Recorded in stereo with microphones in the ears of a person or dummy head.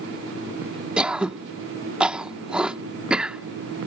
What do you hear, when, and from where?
1.0 s throat clearing: centre (ahead or behind)